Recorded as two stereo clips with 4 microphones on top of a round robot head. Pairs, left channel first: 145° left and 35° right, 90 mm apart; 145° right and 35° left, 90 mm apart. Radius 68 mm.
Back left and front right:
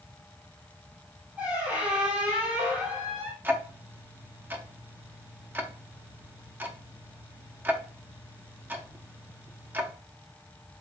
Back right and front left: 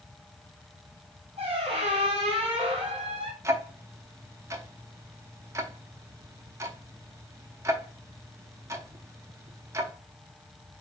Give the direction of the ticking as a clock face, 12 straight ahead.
11 o'clock.